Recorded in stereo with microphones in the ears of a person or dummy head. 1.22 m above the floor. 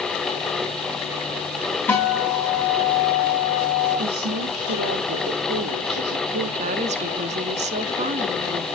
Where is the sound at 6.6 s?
35° right (ahead or behind), 0.6 m.